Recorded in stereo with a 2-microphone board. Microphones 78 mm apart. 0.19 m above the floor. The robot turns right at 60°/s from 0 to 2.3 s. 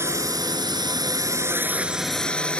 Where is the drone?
35° right (ahead or behind); by 2.6 s 15° left (ahead or behind).